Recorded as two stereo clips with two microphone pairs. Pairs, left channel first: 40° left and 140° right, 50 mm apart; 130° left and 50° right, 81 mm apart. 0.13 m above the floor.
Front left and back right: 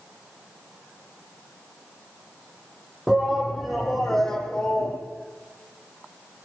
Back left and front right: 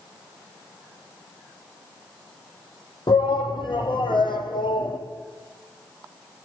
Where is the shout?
135° left, 5 m; by 5.0 s 110° left, 5.5 m.